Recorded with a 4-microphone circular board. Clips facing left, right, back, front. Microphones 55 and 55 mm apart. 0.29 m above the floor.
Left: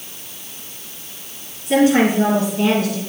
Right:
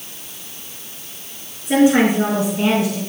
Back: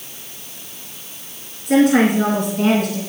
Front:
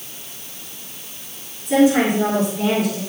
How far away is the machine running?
I don't hear a machine running.